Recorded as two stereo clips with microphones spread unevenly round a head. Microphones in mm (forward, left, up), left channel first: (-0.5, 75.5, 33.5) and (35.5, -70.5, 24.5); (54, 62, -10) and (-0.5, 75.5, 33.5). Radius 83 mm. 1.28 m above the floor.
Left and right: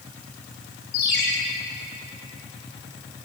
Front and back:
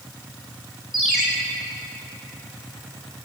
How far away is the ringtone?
About 5.5 m.